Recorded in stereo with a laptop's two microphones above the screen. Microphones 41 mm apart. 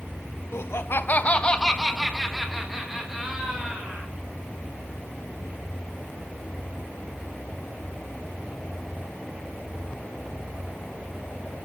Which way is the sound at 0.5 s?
75° left (ahead or behind).